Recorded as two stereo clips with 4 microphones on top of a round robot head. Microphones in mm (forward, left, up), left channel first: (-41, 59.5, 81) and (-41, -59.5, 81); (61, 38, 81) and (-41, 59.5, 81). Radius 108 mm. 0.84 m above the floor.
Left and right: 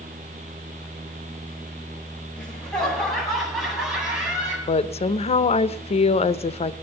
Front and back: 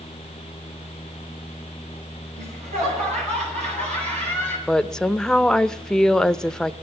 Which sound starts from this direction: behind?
Laughter, at 2.4 s.